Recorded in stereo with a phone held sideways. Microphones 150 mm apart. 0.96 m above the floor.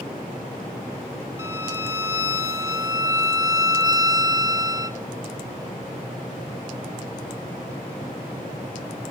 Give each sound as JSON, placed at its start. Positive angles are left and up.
{"t": 1.4, "sound": "a violin", "side_deg": -20, "distance_m": 0.8}